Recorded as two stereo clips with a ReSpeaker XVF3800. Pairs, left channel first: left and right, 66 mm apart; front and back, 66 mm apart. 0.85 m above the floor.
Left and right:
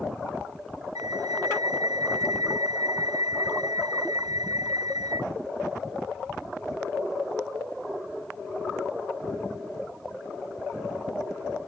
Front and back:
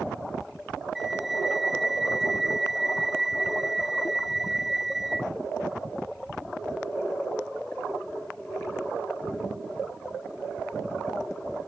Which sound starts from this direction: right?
A flute, at 0.9 s.